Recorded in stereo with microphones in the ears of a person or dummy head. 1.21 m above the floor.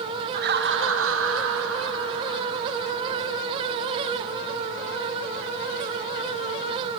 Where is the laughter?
45° right (ahead or behind), 0.7 m; by 3.2 s 65° right (ahead or behind), 3 m.